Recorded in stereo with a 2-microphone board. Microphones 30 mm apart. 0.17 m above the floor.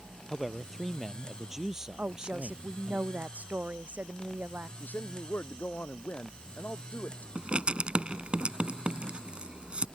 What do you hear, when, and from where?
0.3 s a man speaking: centre (ahead or behind); by 3.0 s 30° right (ahead or behind)
2.0 s a woman speaking: 55° right (ahead or behind)
4.8 s a man speaking: 70° left (ahead or behind)
7.3 s writing: 35° right (ahead or behind)